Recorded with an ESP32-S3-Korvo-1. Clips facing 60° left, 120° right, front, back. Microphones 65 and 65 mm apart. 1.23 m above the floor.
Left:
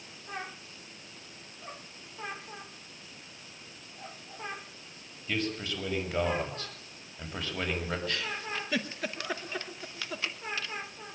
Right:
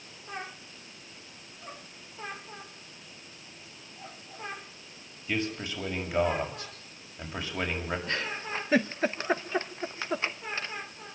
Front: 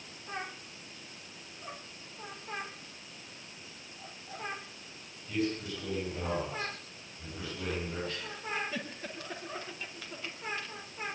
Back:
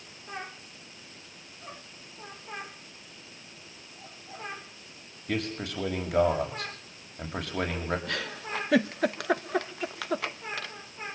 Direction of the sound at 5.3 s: 160° left.